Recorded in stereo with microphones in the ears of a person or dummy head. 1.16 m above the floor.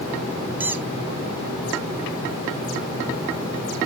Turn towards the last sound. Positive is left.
turn(degrees=-10)  # may be behind; listen again after turning